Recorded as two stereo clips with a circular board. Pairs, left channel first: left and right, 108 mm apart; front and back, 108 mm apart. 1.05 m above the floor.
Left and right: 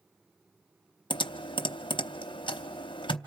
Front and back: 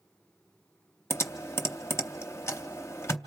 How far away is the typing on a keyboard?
About 0.7 m.